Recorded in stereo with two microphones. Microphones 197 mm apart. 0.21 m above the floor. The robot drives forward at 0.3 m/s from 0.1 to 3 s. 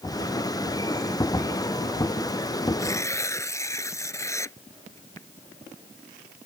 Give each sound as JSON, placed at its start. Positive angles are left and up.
{"t": 2.8, "sound": "tearing paper", "side_deg": 15}